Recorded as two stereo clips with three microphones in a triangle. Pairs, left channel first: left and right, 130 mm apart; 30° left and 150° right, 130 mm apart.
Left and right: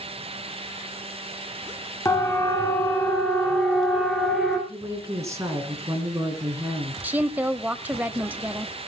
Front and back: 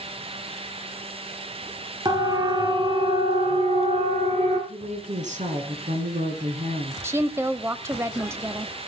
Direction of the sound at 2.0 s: 155° left.